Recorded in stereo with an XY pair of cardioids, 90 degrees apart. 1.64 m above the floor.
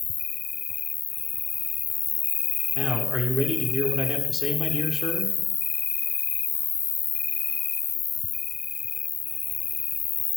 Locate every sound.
0.0 s an insect: 55° left, 0.8 m
2.8 s a man speaking: 5° right, 6 m